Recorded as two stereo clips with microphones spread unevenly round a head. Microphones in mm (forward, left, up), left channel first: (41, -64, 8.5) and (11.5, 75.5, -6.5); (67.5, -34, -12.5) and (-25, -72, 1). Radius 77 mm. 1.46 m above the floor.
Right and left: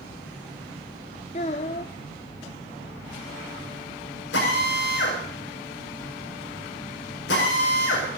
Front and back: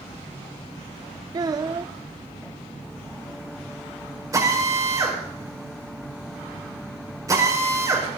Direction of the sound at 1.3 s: 120° right.